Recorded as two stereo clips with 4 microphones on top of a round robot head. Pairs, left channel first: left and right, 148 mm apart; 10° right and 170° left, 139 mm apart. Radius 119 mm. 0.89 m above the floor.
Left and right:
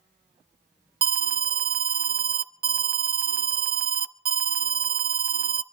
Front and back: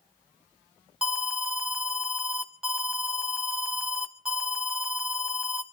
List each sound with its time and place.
1.0 s an alarm: 105° right, 0.8 m